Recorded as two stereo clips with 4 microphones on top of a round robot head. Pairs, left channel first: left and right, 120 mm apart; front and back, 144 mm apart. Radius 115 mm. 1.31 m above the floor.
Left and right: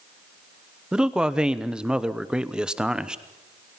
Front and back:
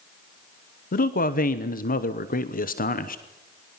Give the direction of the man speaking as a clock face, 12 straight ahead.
12 o'clock.